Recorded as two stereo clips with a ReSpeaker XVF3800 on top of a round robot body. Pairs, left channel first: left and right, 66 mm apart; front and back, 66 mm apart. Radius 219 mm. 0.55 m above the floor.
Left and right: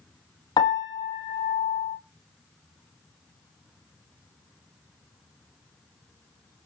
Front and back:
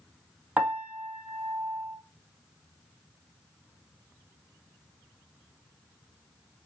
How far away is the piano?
About 1.2 m.